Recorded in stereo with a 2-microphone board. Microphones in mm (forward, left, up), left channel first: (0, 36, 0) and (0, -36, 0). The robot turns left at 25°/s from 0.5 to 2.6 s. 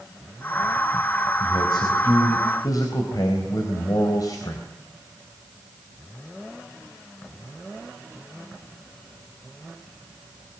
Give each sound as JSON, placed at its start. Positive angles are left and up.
{"t": 1.4, "sound": "a man speaking", "azimuth_deg": 90, "distance_m": 3.5}